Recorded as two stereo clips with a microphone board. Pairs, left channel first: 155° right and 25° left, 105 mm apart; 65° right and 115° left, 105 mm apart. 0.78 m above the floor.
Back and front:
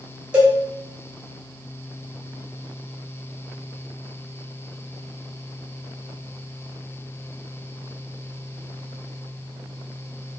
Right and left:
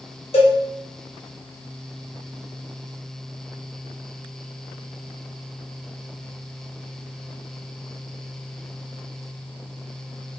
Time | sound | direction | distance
0.3 | a cowbell | 55° right | 0.7 m